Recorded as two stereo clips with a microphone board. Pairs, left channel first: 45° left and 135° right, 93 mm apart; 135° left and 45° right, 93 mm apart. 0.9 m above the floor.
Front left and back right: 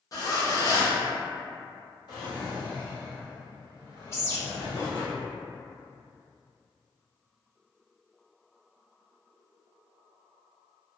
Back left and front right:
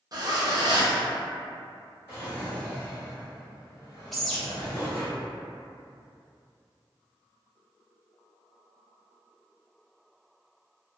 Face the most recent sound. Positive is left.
turn(degrees=50)